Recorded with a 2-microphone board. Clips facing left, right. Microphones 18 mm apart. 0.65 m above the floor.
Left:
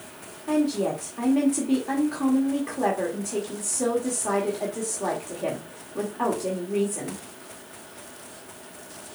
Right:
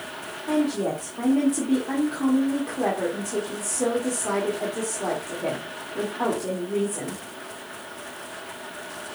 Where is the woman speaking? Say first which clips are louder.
Even; 10° left (ahead or behind), 1.7 m.